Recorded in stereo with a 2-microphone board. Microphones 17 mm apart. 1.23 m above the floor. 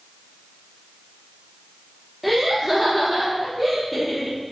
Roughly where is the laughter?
Centre.